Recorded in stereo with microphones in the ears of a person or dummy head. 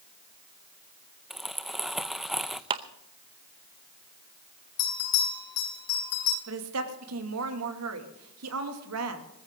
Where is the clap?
30° right (ahead or behind), 0.7 m.